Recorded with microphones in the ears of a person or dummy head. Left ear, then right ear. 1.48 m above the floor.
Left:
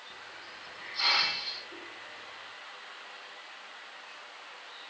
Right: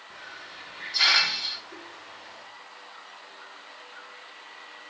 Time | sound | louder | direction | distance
0.1 | a hiss | right 7 dB | 55° right (ahead or behind) | 5 m